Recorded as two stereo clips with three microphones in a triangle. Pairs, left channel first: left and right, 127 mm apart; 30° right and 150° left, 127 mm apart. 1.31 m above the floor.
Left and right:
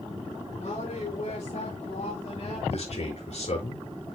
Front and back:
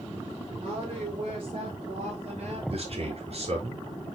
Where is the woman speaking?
115° left, 5 m; by 2.6 s 125° left, 4.5 m.